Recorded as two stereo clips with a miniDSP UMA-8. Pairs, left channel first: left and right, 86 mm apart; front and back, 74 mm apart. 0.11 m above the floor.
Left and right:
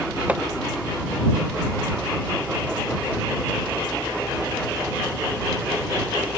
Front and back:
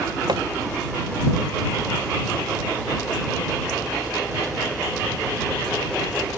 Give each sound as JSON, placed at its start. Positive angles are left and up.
{"t": 0.3, "sound": "hammering", "azimuth_deg": -160}